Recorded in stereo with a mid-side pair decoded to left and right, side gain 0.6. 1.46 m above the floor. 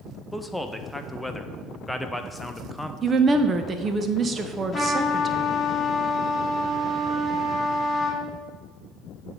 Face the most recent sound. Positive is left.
turn(degrees=15)